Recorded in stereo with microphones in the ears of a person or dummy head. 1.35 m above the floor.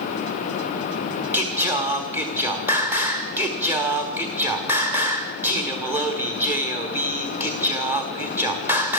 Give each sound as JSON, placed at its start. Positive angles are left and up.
{"t": 1.3, "sound": "singing", "side_deg": -10, "distance_m": 1.6}